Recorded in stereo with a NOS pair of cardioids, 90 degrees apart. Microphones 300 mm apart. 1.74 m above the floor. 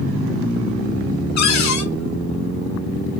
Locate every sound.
1.4 s a cupboard door: 65° left, 0.8 m